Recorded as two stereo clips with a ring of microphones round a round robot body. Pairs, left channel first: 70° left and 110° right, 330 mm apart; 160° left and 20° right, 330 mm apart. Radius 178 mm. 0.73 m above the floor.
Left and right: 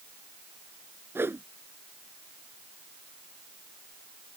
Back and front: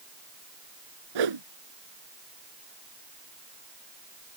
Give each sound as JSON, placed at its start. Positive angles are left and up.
{"t": 1.1, "sound": "a whoosh", "azimuth_deg": -30}